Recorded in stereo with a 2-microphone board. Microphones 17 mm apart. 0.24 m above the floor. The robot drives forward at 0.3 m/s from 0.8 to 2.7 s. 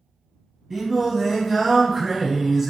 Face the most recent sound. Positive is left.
turn(degrees=-20)  # may be behind; listen again after turning